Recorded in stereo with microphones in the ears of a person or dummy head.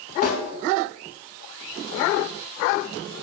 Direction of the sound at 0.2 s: 45° left (ahead or behind).